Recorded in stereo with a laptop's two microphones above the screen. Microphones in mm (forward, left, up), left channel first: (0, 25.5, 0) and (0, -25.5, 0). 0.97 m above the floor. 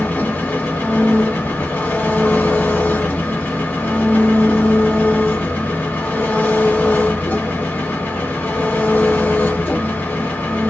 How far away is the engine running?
About 1.4 m.